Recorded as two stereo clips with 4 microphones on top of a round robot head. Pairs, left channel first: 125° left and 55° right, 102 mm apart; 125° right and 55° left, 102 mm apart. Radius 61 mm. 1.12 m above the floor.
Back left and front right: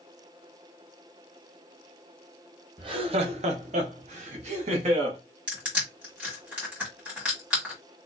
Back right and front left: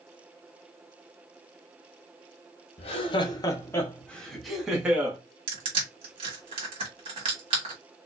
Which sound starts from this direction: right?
Laughter, at 2.8 s.